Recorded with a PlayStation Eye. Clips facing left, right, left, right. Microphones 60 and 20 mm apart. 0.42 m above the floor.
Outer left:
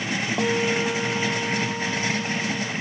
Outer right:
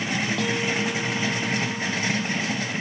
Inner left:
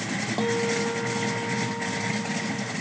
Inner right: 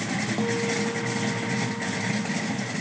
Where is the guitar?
20° left (ahead or behind).